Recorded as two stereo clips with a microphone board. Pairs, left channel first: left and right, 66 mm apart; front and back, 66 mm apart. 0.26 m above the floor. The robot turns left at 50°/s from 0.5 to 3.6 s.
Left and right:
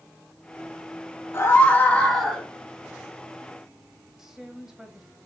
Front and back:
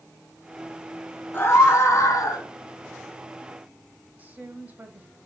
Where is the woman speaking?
165° right, 1.1 m.